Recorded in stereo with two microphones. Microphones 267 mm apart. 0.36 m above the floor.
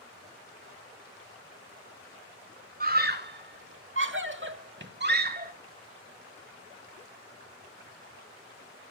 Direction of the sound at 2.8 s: 35° right (ahead or behind).